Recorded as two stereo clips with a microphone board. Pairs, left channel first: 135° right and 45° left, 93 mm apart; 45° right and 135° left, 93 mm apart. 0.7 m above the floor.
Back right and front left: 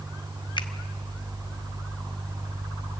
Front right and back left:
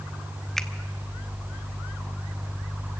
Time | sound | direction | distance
0.6 | a finger snap | 130° right | 0.9 m